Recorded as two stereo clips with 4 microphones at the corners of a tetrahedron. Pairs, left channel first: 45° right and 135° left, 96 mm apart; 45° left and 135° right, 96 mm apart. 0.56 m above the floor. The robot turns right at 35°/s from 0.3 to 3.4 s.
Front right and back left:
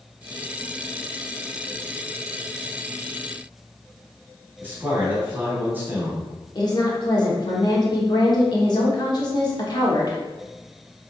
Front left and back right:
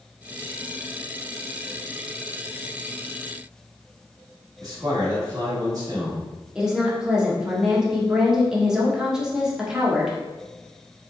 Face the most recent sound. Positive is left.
turn(degrees=-55)